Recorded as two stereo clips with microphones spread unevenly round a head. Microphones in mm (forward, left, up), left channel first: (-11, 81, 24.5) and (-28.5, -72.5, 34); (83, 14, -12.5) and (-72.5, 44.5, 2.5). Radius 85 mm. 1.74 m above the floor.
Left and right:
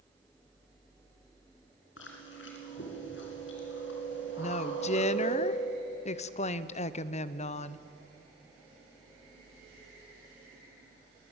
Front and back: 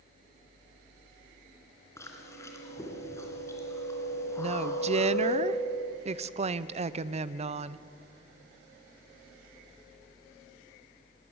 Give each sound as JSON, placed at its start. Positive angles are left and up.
{"t": 2.0, "sound": "chewing", "azimuth_deg": 65, "distance_m": 4.0}
{"t": 4.4, "sound": "a woman speaking", "azimuth_deg": 130, "distance_m": 0.7}